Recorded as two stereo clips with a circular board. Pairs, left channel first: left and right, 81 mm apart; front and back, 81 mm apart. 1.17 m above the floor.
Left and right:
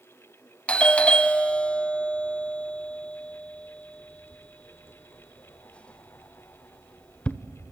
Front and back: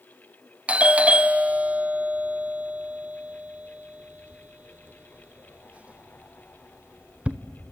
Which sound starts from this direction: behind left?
A doorbell, at 0.7 s.